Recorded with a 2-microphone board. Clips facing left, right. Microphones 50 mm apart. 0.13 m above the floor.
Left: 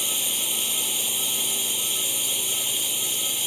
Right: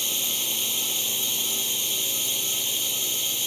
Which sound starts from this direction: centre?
A drone, at 0.0 s.